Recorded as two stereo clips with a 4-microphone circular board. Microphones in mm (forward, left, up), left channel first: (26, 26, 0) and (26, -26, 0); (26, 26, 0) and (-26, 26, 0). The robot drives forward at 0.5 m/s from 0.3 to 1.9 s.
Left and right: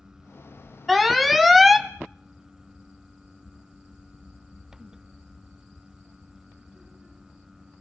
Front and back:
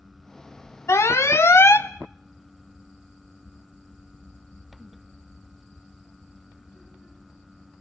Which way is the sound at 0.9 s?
5° right.